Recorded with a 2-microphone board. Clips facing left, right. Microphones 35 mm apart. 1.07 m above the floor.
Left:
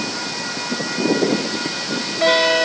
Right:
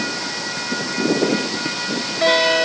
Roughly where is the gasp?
No gasp in this recording.